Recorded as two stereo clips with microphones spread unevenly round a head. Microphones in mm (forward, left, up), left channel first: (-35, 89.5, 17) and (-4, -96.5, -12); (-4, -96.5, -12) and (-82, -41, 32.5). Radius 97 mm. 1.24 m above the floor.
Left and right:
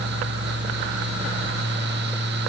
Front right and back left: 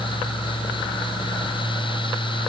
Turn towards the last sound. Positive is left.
No sound to turn to.